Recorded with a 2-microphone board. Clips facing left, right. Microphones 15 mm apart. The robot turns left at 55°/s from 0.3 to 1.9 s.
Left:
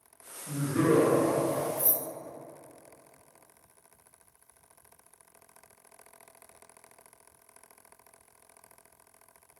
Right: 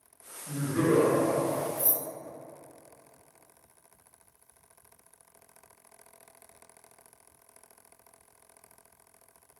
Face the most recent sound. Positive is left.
turn(degrees=15)  # may be behind; listen again after turning